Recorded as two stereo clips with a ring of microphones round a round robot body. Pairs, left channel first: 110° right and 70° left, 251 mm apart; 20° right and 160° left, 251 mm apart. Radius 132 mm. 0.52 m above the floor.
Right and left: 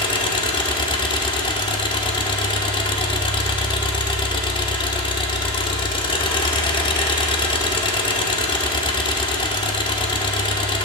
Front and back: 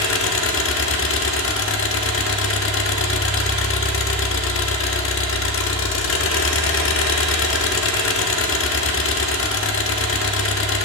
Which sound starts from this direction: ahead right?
An engine running, at 0.0 s.